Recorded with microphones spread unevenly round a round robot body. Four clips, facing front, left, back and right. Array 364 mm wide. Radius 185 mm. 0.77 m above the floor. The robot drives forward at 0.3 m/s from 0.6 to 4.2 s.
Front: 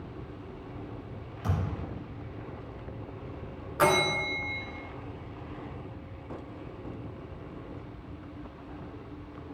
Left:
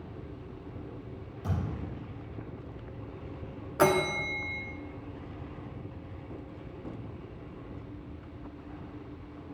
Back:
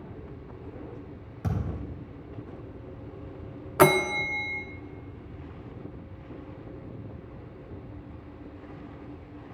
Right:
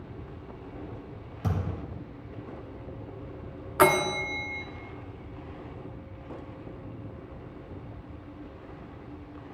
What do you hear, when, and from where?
1.4 s a thud: 125° right, 3 m
3.8 s a bell: 160° right, 0.5 m; by 4.6 s 165° right, 0.6 m